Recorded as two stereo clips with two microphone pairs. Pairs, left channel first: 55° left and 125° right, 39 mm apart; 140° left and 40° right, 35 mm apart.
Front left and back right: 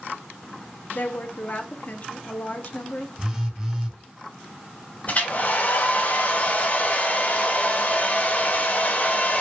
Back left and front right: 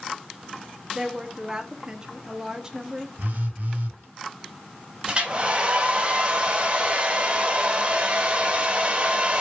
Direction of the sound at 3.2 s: 55° right.